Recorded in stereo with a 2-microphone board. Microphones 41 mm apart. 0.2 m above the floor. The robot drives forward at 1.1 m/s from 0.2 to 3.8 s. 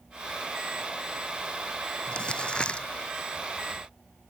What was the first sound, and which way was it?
Crumpling, 20° left (ahead or behind).